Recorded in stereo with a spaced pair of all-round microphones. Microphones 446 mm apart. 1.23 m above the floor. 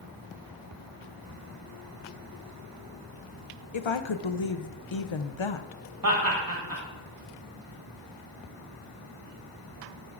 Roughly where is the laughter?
Right.